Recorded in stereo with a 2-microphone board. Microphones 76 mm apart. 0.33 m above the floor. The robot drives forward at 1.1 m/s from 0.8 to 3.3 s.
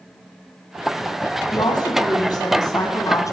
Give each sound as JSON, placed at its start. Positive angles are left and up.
{"t": 1.5, "sound": "a woman speaking", "side_deg": 65, "distance_m": 2.0}